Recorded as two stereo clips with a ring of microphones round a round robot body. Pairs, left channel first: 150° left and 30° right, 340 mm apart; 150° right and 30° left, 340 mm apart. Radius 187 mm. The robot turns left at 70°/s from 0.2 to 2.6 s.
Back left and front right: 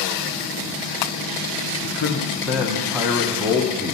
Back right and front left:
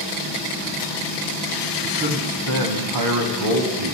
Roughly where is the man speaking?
Left.